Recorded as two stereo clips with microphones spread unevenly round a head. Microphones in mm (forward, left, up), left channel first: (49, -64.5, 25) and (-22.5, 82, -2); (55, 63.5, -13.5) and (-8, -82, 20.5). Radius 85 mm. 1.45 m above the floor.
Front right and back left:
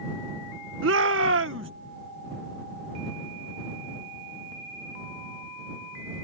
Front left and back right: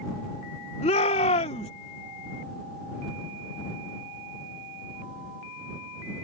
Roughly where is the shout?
Behind left.